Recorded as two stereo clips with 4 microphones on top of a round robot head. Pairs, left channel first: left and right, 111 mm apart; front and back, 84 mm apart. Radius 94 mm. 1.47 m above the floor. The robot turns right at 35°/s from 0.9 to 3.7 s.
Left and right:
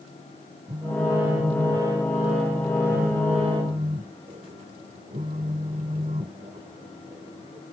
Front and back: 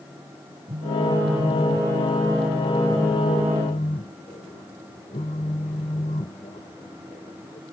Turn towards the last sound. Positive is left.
turn(degrees=-40)